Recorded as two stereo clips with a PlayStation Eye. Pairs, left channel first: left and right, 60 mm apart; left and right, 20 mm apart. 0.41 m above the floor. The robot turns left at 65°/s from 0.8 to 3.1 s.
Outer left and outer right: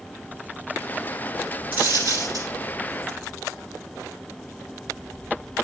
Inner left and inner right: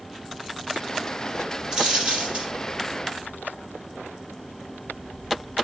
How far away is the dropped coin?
About 4.5 m.